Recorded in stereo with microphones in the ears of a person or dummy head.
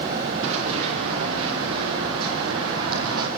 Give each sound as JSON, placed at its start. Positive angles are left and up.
{"t": 0.4, "sound": "running footsteps", "side_deg": -80, "distance_m": 7.0}